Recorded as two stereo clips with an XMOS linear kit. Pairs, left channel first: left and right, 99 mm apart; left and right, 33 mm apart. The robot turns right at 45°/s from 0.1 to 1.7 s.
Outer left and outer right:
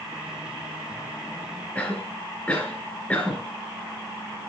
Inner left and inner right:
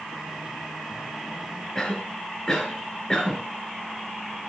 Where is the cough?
15° left (ahead or behind), 3 m.